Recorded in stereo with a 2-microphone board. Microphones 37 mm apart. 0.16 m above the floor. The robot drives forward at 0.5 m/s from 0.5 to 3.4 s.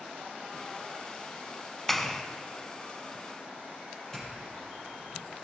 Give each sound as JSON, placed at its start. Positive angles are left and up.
{"t": 1.9, "sound": "a clap", "side_deg": 10, "distance_m": 0.8}
{"t": 4.1, "sound": "a doorbell", "side_deg": 15, "distance_m": 5.0}